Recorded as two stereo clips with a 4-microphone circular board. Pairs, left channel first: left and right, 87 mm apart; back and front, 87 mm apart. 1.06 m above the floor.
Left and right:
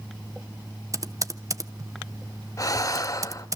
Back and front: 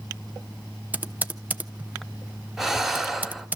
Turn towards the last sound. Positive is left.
turn(degrees=90)